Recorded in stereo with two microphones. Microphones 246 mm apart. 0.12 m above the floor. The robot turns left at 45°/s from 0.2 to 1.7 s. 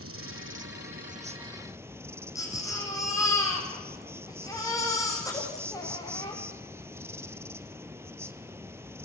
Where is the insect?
100° right, 0.9 m; by 9.1 s 170° right, 0.9 m.